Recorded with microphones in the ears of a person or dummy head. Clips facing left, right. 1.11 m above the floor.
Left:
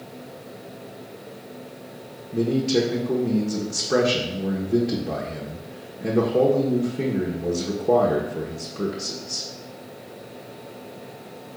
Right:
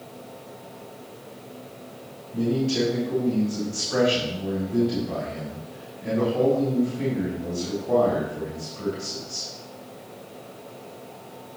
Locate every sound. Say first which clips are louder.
2.3 s a man speaking: left 2 dB; 70° left (ahead or behind), 1.3 m